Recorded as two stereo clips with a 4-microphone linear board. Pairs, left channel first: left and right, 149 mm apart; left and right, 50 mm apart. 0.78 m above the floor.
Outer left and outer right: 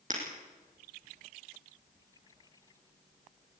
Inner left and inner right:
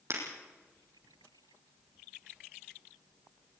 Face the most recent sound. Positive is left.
turn(degrees=-55)  # may be behind; listen again after turning